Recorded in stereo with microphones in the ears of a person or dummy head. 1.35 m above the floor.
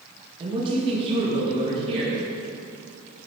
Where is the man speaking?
30° right (ahead or behind), 1.8 m; by 2.2 s 35° right (ahead or behind), 3 m.